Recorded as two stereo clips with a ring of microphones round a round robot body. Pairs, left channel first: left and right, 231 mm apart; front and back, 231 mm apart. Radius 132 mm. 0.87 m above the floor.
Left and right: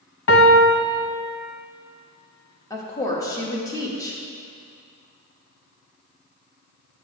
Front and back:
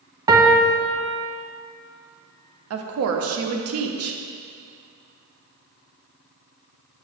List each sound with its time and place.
0.3 s a piano: 110° left, 1.0 m
2.7 s a woman speaking: 165° left, 1.0 m